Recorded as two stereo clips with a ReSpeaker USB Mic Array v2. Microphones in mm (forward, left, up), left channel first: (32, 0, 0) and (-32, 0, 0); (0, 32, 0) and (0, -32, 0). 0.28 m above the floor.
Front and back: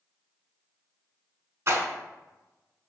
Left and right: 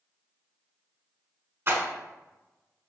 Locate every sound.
1.7 s a rattle: 135° right, 0.6 m